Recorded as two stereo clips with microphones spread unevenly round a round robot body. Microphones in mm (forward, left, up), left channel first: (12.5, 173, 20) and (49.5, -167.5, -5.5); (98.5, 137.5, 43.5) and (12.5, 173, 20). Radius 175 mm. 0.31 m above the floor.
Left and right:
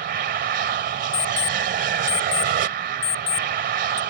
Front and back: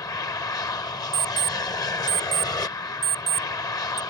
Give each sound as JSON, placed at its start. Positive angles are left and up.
{"t": 0.0, "sound": "an aircraft", "azimuth_deg": -55}
{"t": 1.1, "sound": "an alarm clock", "azimuth_deg": 30}